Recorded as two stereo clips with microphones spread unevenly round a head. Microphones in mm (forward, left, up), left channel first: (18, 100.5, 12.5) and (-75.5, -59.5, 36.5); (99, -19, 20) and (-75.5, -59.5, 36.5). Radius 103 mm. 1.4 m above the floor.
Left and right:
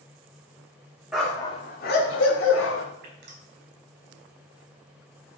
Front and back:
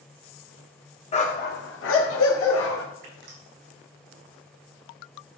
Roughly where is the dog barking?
Ahead right.